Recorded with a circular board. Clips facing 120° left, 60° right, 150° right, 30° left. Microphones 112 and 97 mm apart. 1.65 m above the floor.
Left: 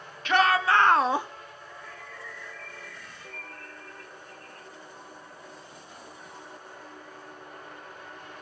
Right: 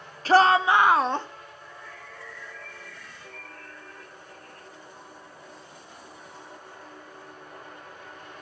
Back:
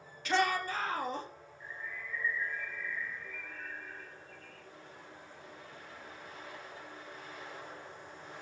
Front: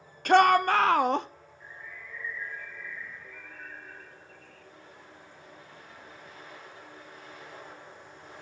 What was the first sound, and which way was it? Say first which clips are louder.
A shout: right 4 dB, front 11 dB; 10° right.